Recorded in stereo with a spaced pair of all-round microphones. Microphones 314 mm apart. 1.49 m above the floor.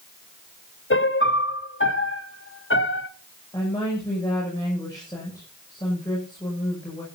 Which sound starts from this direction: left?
A piano, at 0.9 s.